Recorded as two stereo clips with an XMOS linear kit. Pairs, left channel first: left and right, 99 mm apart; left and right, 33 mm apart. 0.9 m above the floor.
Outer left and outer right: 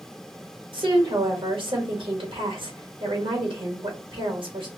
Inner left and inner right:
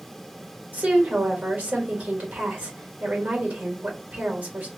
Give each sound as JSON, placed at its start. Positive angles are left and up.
{"t": 0.7, "sound": "a woman speaking", "side_deg": -60, "distance_m": 1.4}